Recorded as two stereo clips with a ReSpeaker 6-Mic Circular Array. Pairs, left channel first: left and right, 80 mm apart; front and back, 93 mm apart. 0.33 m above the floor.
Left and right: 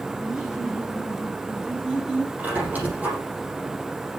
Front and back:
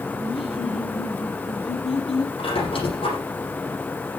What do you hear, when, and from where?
0.2 s laughter: 10° right, 6 m; by 2.3 s 5° right, 9 m
2.4 s a squeak: 20° right, 7 m